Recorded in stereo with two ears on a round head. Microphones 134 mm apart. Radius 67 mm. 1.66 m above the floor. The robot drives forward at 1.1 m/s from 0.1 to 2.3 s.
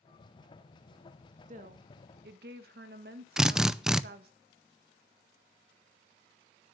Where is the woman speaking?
50° right (ahead or behind), 2.0 m; by 4.3 s 70° right (ahead or behind), 1.6 m.